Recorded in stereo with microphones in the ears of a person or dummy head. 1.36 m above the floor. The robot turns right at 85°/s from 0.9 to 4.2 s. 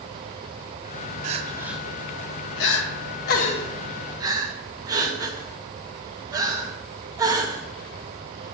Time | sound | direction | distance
1.2 | crying | 45° right (ahead or behind) | 0.7 m